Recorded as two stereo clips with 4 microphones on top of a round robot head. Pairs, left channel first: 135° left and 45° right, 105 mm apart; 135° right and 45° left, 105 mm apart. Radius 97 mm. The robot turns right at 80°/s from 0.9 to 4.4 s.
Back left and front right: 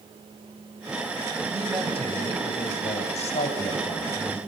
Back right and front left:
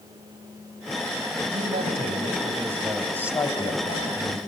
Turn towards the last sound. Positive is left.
turn(degrees=-110)